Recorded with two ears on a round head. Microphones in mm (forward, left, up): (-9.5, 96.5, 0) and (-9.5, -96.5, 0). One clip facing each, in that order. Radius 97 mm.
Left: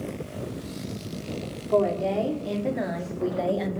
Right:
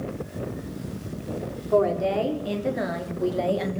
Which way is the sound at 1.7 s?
5° right (ahead or behind).